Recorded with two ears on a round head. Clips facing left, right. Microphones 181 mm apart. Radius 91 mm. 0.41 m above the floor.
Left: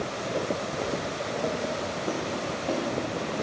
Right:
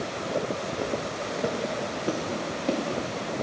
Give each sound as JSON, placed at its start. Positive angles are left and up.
{"t": 0.7, "sound": "footsteps", "side_deg": -10, "distance_m": 1.2}